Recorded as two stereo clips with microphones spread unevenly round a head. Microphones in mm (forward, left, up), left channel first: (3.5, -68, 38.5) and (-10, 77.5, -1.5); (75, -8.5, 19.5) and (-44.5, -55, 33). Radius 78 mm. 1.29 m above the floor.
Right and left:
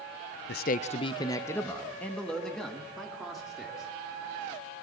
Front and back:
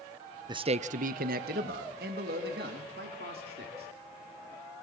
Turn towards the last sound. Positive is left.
turn(degrees=-175)